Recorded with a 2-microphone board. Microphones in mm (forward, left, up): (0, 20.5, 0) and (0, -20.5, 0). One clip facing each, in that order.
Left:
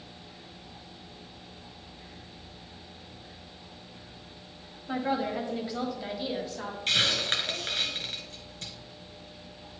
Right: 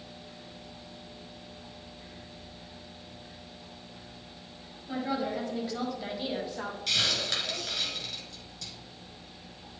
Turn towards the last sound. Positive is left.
turn(degrees=40)  # may be behind; listen again after turning